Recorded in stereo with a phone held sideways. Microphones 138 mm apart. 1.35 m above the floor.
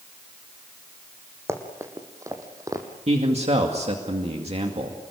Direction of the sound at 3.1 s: 55° right (ahead or behind).